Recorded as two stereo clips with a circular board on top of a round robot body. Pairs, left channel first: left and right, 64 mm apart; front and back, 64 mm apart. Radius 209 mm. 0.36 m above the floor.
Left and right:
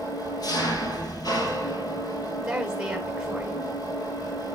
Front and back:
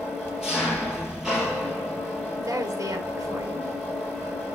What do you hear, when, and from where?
0.0 s an engine running: 100° left, 3.5 m
2.4 s a woman speaking: 165° right, 3 m